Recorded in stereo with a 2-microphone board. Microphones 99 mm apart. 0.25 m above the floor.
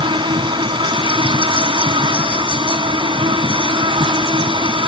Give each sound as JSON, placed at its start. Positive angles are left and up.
{"t": 0.0, "sound": "an insect", "side_deg": -60}